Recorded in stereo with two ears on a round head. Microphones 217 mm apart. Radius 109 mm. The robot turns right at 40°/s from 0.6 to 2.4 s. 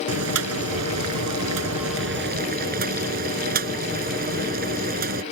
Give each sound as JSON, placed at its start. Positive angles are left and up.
{"t": 0.1, "sound": "boiling", "azimuth_deg": -110}